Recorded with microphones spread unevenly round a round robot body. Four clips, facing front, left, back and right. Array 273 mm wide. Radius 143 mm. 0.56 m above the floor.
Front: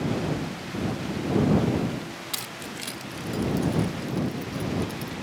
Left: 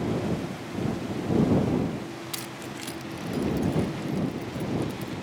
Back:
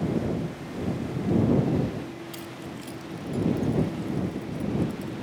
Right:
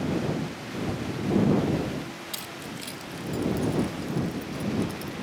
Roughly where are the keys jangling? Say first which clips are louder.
Left 1 dB, even; ahead.